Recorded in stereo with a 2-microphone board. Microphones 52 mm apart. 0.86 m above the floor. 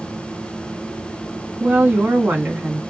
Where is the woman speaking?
40° right (ahead or behind), 1.5 m.